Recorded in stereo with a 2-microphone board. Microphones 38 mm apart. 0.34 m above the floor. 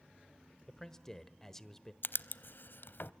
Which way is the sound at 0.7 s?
15° left (ahead or behind).